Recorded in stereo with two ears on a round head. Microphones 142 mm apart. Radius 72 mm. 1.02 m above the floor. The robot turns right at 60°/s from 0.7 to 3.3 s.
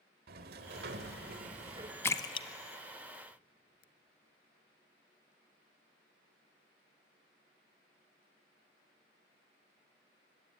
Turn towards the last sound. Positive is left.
turn(degrees=60)  # may be behind; listen again after turning